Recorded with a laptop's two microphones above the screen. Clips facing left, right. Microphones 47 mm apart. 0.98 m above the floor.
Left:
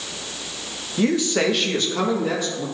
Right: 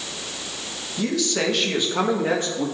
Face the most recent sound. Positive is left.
turn(degrees=-45)  # may be behind; listen again after turning